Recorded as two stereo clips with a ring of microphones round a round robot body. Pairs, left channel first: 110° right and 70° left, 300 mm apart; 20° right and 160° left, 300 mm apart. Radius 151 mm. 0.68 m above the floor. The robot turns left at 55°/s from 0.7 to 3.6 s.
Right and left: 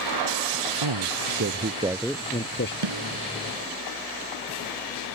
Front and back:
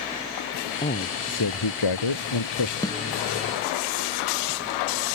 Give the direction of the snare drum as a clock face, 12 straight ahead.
10 o'clock.